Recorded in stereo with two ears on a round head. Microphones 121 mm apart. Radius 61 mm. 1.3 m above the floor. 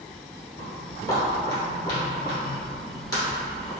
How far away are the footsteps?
About 1.7 m.